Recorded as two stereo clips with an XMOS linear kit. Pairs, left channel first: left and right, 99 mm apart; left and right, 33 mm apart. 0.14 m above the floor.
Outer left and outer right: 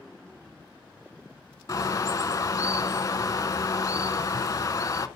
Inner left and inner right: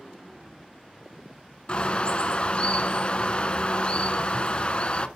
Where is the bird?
35° left (ahead or behind), 0.6 m.